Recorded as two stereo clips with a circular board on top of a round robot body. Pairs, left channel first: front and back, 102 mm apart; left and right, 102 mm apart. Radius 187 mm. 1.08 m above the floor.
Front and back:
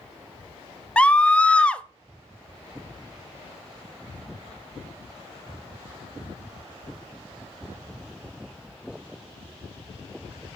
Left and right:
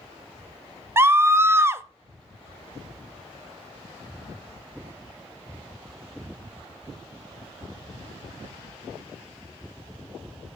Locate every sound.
1.0 s a scream: 65° right, 0.7 m